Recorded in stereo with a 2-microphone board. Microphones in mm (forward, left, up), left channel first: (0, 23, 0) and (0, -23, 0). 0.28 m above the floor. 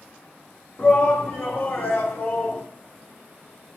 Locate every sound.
0.8 s a shout: 45° left (ahead or behind), 3.5 m; by 2.6 s 60° left (ahead or behind), 3 m